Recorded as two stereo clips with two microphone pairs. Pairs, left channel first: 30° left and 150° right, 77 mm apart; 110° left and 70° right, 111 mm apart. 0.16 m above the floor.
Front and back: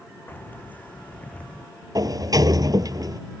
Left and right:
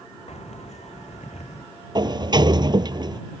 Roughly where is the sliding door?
Behind right.